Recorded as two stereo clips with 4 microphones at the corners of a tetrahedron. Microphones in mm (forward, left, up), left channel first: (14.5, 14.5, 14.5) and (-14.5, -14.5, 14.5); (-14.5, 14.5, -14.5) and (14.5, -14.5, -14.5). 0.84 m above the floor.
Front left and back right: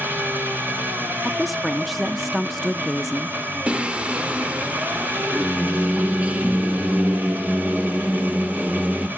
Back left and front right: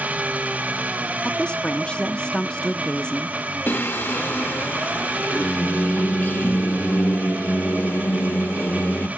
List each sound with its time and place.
0.0 s an engine running: 100° right, 2.5 m
1.2 s a woman speaking: 140° left, 0.5 m
3.7 s singing: 165° left, 0.9 m